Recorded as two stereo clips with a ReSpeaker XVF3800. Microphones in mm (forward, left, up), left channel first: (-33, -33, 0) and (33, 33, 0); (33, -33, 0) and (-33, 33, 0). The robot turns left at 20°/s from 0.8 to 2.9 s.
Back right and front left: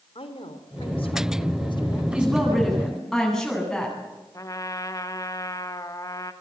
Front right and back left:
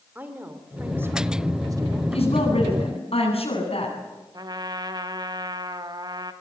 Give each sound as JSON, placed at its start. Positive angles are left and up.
{"t": 0.1, "sound": "a woman speaking", "azimuth_deg": -155, "distance_m": 3.0}
{"t": 2.1, "sound": "a woman speaking", "azimuth_deg": -35, "distance_m": 9.0}
{"t": 4.3, "sound": "a trumpet", "azimuth_deg": 175, "distance_m": 1.6}